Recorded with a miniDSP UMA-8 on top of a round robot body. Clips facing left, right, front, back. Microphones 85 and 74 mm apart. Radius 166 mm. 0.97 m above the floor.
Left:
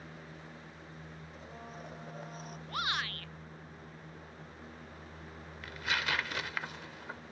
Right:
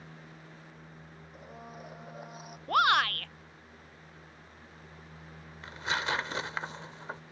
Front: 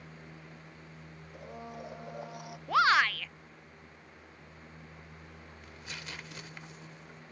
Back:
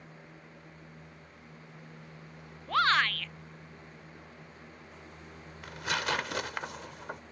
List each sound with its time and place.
1.3 s a blender: 10° right
2.7 s a shout: 80° right
5.6 s tearing paper: 155° right